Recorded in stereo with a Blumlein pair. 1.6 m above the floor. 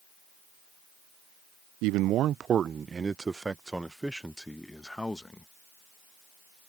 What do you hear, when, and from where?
1.8 s a man speaking: 45° right; by 5.5 s 5° left